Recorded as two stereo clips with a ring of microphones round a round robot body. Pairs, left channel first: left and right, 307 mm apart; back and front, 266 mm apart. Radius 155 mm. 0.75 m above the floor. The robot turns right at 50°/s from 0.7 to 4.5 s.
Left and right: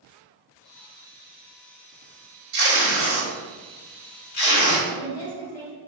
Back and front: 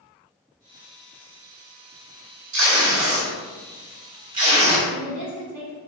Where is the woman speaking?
85° left, 1.3 m.